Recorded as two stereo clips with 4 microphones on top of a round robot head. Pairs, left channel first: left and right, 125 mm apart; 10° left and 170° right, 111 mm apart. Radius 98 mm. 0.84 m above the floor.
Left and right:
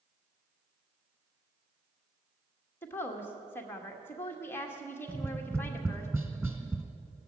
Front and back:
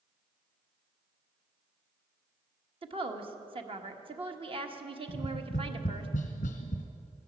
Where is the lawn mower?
I don't hear a lawn mower.